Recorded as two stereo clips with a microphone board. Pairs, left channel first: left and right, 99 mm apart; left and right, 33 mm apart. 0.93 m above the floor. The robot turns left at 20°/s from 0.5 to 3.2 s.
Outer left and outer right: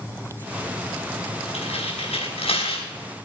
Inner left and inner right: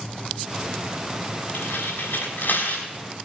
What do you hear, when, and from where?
1.5 s tearing paper: 85° left, 5.5 m; by 2.9 s 65° left (ahead or behind), 5.5 m